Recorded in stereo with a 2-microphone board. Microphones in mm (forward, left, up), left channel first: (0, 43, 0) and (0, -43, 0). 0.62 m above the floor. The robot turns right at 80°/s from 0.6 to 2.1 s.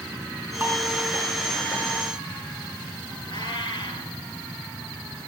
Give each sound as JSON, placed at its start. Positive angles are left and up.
{"t": 0.6, "sound": "dishes clattering", "side_deg": -40, "distance_m": 4.5}
{"t": 3.3, "sound": "a cat meowing", "side_deg": 90, "distance_m": 3.0}